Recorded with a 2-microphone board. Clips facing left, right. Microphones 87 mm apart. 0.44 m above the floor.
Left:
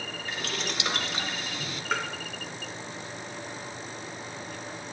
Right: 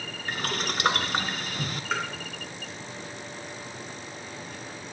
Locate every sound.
0.3 s boiling: 50° right (ahead or behind), 2 m
1.9 s tapping: 5° left (ahead or behind), 3.5 m